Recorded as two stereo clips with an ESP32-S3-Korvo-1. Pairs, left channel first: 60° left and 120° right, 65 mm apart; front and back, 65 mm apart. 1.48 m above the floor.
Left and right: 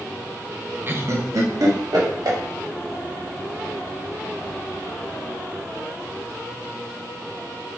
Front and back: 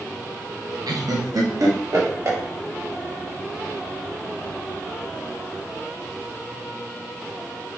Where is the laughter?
Straight behind, 0.8 m; by 2.4 s 140° right, 1.7 m.